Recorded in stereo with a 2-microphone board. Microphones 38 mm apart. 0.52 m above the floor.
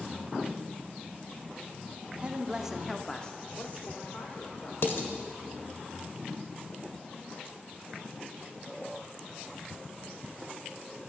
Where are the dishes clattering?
65° left (ahead or behind), 1.3 m.